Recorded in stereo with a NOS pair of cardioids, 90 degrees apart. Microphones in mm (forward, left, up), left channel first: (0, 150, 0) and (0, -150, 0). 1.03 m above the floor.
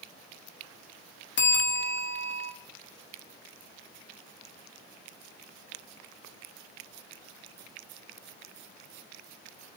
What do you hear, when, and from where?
1.4 s a bell: 40° left, 1.6 m